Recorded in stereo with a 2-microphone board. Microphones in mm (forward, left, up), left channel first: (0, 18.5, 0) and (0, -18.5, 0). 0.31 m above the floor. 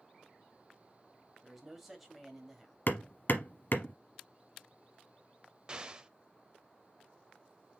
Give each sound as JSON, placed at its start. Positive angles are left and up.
{"t": 1.4, "sound": "a man speaking", "side_deg": 0, "distance_m": 1.6}
{"t": 2.9, "sound": "hammering", "side_deg": 70, "distance_m": 0.9}
{"t": 5.7, "sound": "an explosion", "side_deg": -20, "distance_m": 0.5}